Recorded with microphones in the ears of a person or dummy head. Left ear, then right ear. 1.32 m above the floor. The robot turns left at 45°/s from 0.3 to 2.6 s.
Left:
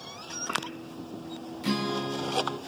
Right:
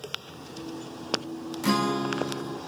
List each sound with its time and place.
1.6 s a guitar: 140° right, 0.8 m; by 2.6 s 175° left, 0.8 m